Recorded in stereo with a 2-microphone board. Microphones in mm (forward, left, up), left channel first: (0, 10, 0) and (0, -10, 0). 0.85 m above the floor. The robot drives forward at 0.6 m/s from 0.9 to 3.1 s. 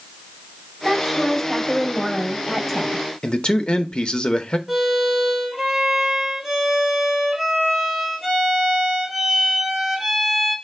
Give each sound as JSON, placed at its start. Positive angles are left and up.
{"t": 0.8, "sound": "a woman speaking", "side_deg": 0, "distance_m": 1.6}
{"t": 3.2, "sound": "a man speaking", "side_deg": 45, "distance_m": 0.5}
{"t": 4.7, "sound": "a violin", "side_deg": -10, "distance_m": 3.0}